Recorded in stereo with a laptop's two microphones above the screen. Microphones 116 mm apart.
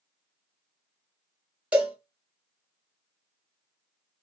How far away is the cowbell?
About 1.1 m.